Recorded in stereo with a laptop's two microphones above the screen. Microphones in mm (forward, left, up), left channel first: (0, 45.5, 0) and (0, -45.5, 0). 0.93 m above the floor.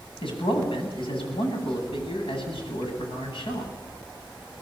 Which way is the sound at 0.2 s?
75° left (ahead or behind).